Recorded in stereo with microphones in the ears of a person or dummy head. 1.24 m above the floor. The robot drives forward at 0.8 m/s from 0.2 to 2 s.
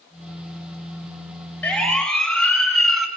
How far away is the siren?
About 7 m.